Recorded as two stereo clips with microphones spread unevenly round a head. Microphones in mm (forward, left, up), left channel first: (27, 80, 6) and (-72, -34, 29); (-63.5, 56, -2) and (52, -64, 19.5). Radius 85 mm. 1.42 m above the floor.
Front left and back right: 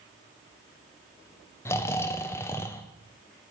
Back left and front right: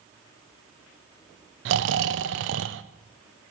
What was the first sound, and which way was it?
Snoring, 30° right.